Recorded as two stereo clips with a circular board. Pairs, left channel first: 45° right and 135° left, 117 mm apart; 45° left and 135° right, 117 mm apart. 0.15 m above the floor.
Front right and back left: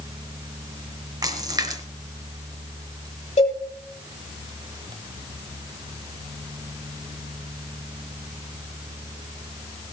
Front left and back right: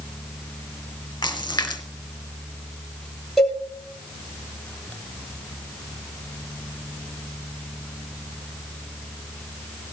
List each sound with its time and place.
1.2 s a splash: 90° left, 1.7 m
3.4 s a cowbell: 45° right, 2.5 m